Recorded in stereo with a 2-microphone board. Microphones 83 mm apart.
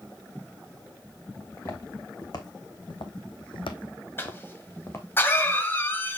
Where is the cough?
25° left (ahead or behind), 1.3 m.